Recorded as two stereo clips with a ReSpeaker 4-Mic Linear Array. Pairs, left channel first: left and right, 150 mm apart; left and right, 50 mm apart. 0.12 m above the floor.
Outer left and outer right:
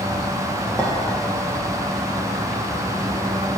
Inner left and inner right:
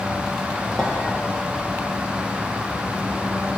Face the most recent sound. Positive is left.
turn(degrees=10)  # may be behind; listen again after turning